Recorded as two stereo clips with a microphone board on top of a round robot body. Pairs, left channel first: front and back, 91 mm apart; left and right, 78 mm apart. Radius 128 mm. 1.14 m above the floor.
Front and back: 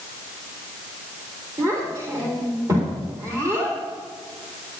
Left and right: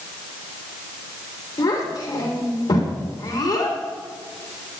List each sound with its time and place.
1.6 s a child speaking: 125° left, 3 m